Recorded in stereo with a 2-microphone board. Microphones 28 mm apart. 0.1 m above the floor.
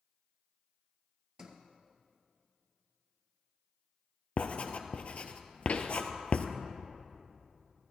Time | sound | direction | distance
1.4 | a sliding door | 25° right (ahead or behind) | 1.7 m
4.4 | writing | 50° left (ahead or behind) | 1.0 m
5.7 | a pop | 50° left (ahead or behind) | 0.9 m